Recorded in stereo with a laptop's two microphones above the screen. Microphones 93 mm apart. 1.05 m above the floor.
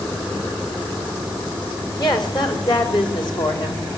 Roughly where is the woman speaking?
Left.